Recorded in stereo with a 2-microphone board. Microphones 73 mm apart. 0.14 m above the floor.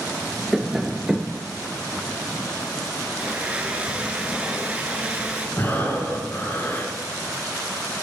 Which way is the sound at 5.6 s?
30° left (ahead or behind).